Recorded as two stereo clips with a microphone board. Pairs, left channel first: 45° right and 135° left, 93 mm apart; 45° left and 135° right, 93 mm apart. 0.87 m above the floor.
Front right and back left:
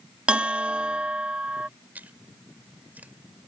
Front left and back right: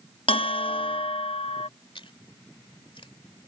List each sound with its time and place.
0.3 s a bell: 60° left
1.9 s chewing: 65° left